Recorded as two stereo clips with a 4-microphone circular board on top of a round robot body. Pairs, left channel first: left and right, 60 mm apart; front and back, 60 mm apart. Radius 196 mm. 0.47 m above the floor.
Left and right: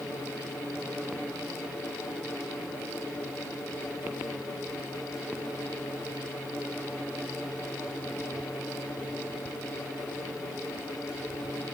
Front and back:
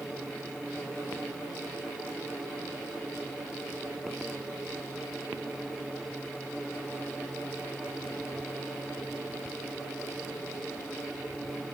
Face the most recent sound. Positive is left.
No sound to turn to.